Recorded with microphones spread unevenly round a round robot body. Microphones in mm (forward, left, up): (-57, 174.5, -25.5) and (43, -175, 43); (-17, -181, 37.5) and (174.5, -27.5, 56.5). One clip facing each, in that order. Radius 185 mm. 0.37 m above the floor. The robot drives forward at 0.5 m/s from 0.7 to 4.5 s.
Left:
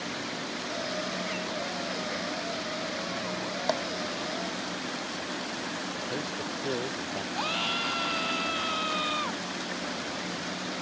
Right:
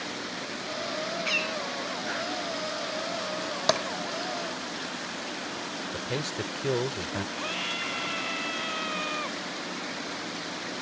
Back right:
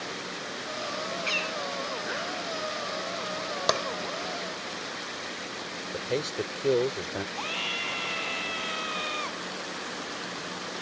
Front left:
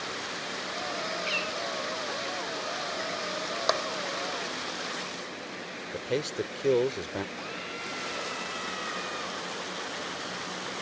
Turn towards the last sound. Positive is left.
turn(degrees=180)